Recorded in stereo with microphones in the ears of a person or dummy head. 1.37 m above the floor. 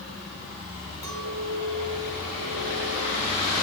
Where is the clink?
20° left (ahead or behind), 7.5 m.